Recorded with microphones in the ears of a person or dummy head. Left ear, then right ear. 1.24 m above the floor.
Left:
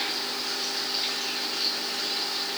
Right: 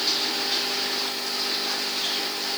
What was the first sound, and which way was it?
Only background noise.